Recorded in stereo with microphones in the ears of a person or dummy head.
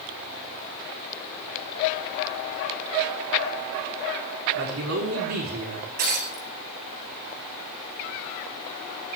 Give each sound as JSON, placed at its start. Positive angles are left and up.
{"t": 4.5, "sound": "a man speaking", "side_deg": -70, "distance_m": 4.5}
{"t": 6.0, "sound": "breaking glass", "side_deg": -50, "distance_m": 8.0}